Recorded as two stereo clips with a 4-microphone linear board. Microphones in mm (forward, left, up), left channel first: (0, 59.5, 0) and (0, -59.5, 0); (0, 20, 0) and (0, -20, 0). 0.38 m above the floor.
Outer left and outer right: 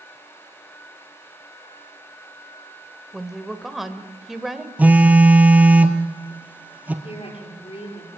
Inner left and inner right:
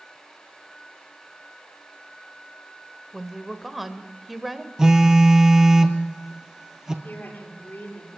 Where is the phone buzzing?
15° right (ahead or behind), 2 m.